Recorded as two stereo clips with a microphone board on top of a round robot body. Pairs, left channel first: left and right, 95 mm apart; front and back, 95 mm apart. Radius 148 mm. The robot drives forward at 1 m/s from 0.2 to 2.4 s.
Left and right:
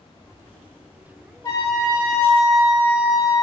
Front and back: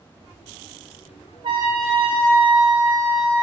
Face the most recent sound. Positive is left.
turn(degrees=155)